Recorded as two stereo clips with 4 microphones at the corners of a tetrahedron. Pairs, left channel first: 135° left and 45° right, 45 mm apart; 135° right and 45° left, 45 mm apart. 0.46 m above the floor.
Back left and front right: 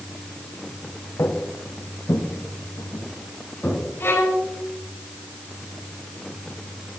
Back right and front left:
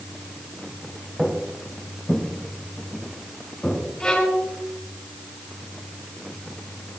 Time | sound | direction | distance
1.2 | footsteps | 135° left | 2.5 m
4.0 | a violin | 160° left | 4 m